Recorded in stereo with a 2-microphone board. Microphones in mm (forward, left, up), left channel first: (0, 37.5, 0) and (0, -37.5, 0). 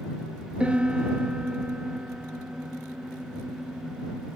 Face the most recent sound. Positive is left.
turn(degrees=-15)  # may be behind; listen again after turning